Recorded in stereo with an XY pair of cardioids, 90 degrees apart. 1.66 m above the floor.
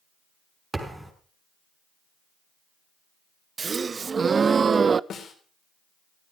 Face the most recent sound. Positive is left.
turn(degrees=65)